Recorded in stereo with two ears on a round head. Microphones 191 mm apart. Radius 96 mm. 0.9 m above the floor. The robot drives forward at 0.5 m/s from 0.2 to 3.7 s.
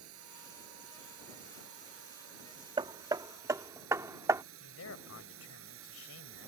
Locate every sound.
0.0 s a drone: 70° right (ahead or behind); by 6.5 s 65° right (ahead or behind)
2.8 s hammering: 20° right (ahead or behind); by 4.4 s 15° right (ahead or behind)
4.6 s a man speaking: 75° left (ahead or behind)